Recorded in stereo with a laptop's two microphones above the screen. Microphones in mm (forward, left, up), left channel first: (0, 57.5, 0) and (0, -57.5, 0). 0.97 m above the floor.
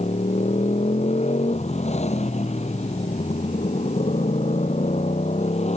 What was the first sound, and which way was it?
A motorcycle, 75° left (ahead or behind).